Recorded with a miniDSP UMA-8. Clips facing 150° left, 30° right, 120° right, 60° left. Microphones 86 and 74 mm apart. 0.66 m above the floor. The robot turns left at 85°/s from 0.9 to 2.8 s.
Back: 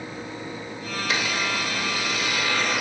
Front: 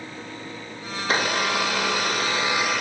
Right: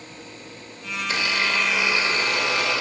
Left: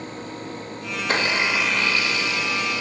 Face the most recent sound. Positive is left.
turn(degrees=-125)